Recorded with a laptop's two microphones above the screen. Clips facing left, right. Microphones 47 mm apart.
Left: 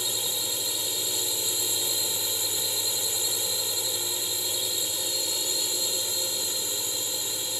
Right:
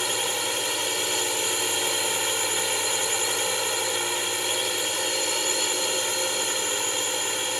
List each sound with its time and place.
0.0 s a drone: 60° right (ahead or behind)